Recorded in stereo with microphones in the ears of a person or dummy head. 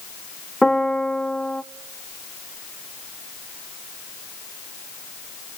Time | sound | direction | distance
0.6 | a piano | 5° left (ahead or behind) | 0.6 m